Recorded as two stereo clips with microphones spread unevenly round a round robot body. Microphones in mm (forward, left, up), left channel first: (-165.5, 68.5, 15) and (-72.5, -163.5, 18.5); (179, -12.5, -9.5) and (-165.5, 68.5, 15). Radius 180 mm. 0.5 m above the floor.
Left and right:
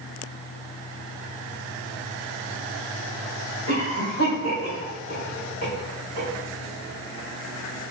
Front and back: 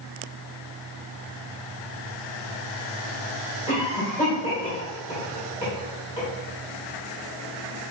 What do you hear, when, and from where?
3.7 s a cough: 85° left, 1.7 m